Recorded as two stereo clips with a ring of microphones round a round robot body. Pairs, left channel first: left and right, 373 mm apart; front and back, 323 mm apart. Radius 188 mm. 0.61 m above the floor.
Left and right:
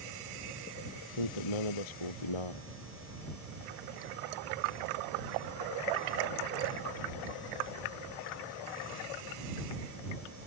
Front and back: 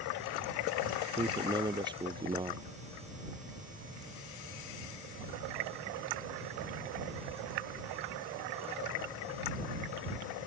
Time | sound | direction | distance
1.2 | a man speaking | 105° left | ?